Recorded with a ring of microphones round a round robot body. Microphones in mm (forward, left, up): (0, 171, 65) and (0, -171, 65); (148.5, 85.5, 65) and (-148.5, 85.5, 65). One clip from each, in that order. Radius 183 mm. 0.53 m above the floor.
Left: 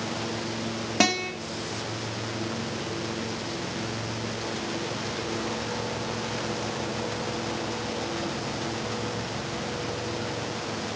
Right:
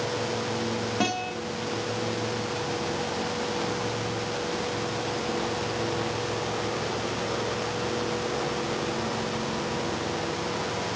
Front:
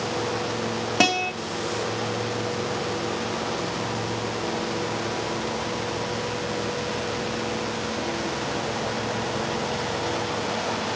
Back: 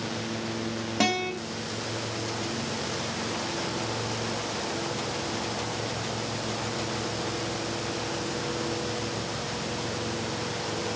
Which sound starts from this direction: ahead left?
A guitar, at 1.0 s.